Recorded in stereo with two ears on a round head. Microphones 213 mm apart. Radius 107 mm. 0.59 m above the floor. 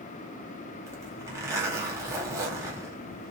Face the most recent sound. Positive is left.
turn(degrees=-10)  # may be behind; listen again after turning